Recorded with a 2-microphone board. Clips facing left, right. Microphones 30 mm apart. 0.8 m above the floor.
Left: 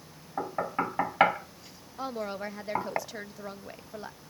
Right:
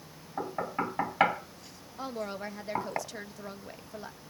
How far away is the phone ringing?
I don't hear a phone ringing.